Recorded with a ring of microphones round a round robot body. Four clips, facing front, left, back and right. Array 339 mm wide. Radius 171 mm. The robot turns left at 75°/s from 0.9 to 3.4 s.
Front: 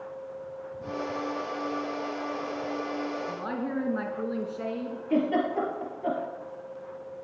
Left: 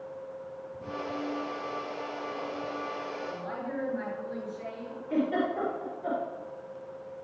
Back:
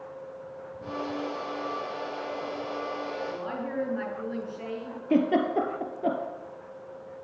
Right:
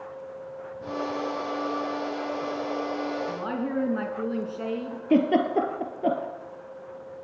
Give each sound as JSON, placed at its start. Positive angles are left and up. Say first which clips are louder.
{"t": 3.3, "sound": "a woman speaking", "louder": "right 6 dB, front 1 dB", "azimuth_deg": -60, "distance_m": 4.5}
{"t": 5.1, "sound": "a giggle", "louder": "right 7 dB, back 2 dB", "azimuth_deg": -115, "distance_m": 3.0}